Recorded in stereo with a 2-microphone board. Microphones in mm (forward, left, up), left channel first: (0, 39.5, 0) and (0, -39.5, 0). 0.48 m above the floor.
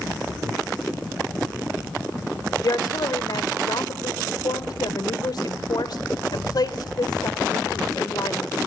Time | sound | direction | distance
2.6 | a woman speaking | 55° left (ahead or behind) | 1.6 m